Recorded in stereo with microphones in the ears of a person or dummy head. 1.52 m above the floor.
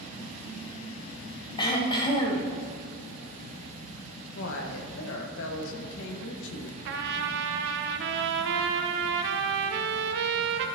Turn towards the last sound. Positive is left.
turn(degrees=-60)  # may be behind; listen again after turning